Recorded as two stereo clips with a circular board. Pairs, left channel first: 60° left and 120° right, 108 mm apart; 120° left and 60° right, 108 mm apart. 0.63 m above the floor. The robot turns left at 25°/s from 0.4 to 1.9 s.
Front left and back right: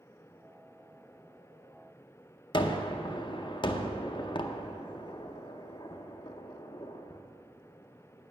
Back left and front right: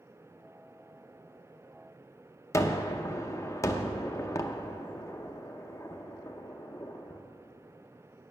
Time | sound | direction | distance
2.5 | a gunshot | 70° left | 0.6 m